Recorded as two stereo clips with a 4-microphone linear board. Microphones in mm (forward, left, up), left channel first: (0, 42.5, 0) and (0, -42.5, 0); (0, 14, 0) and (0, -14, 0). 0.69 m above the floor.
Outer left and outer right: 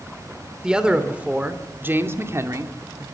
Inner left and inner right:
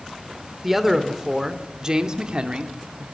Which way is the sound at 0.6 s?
10° right (ahead or behind).